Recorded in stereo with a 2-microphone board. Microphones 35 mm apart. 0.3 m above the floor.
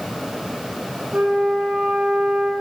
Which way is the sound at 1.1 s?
60° right (ahead or behind).